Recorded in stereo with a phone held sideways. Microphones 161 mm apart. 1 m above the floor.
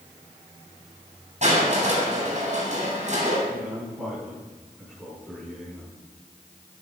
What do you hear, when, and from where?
1.4 s crushing: 45° right (ahead or behind), 7 m
3.5 s a man speaking: centre (ahead or behind), 9.5 m